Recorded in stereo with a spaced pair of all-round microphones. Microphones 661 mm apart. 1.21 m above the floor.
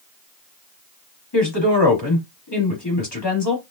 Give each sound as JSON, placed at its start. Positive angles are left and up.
{"t": 1.3, "sound": "a woman speaking", "side_deg": 35, "distance_m": 2.5}